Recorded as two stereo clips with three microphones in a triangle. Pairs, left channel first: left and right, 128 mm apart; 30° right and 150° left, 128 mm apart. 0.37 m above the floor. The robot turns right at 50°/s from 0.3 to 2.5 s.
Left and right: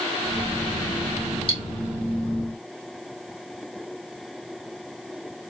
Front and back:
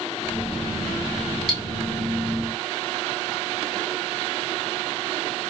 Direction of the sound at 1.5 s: 50° left.